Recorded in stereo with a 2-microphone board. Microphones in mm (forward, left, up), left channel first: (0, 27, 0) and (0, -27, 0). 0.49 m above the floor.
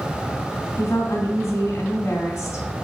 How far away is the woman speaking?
About 2 m.